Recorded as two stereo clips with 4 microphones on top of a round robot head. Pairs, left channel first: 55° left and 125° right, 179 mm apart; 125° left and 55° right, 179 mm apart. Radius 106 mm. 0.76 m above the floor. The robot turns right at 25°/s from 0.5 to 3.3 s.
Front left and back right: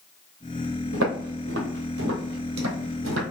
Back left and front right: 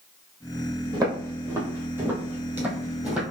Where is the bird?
No bird in this recording.